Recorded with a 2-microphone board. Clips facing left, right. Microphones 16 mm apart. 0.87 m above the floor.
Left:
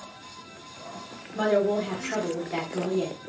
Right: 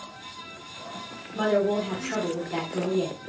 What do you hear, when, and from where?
1.4 s a woman speaking: 5° left (ahead or behind), 0.7 m